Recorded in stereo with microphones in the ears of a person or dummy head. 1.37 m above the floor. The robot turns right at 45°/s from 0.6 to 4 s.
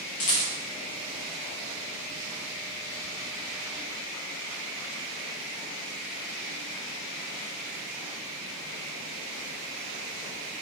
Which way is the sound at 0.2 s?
30° left (ahead or behind).